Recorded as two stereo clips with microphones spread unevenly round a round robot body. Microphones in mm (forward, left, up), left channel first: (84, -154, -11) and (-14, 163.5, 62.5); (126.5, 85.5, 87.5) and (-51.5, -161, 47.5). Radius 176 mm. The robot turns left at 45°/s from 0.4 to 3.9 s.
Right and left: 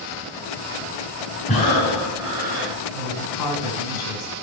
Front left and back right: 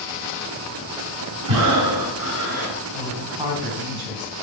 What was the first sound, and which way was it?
Breathing, 140° right.